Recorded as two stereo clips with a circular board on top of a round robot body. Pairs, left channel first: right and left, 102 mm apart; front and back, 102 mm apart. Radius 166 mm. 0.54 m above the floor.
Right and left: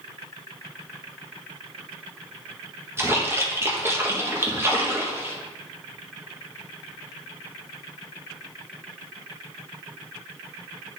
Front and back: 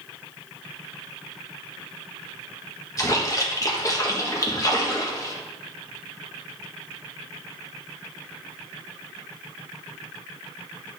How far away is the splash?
About 1.6 m.